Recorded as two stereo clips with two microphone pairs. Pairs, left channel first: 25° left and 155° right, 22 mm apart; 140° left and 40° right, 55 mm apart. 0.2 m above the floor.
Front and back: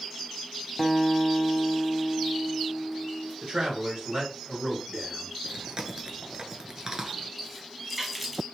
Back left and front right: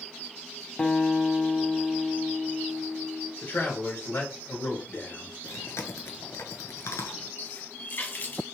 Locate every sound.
0.8 s a guitar: 110° left, 0.6 m
3.4 s a man speaking: 175° left, 3.5 m
5.4 s chewing: 155° left, 0.9 m
7.4 s a running tap: 130° left, 0.9 m